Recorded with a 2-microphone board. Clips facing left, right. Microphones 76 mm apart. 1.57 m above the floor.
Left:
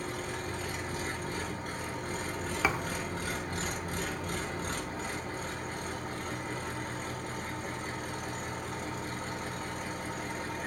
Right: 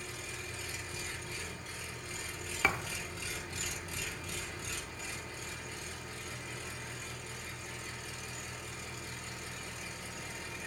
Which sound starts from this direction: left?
An engine running, at 0.0 s.